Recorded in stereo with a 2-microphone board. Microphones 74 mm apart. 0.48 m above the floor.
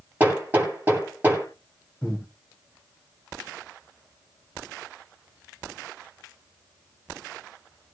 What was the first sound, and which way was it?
Hammering, 20° right (ahead or behind).